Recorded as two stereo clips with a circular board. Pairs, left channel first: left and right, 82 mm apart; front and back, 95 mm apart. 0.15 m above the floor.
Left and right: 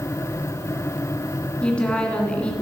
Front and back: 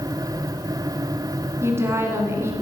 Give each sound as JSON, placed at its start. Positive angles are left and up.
{"t": 1.6, "sound": "a woman speaking", "azimuth_deg": 155, "distance_m": 1.7}